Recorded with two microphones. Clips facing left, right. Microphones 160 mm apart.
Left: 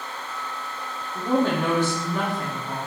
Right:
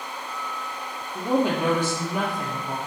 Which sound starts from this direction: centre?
A woman speaking, at 1.1 s.